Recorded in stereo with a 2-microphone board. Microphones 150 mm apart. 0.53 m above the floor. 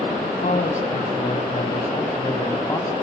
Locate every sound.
0.2 s a man speaking: 65° left (ahead or behind), 3.5 m; by 2.9 s 20° left (ahead or behind), 3.5 m